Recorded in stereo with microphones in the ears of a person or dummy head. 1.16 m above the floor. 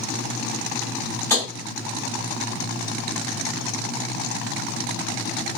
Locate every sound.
1.3 s tapping: 15° left (ahead or behind), 1.7 m